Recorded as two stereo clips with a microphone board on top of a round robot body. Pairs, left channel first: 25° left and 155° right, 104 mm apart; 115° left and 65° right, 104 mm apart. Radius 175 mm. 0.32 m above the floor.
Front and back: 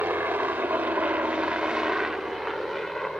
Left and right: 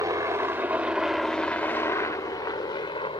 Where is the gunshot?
I don't hear a gunshot.